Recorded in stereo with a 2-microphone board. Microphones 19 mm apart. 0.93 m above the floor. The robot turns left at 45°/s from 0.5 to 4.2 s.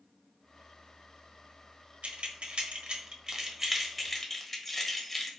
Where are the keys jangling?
85° right, 0.7 m; by 5.3 s 10° left (ahead or behind), 0.7 m.